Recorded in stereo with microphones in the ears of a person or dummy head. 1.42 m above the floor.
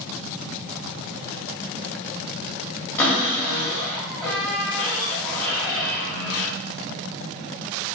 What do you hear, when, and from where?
3.0 s a cupboard door: 15° left (ahead or behind), 1.1 m